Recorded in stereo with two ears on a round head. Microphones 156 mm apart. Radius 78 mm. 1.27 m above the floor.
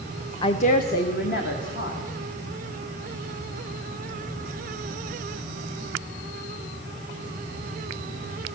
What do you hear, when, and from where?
0.4 s a woman speaking: 25° left (ahead or behind), 0.5 m; by 2.0 s 70° left (ahead or behind), 2 m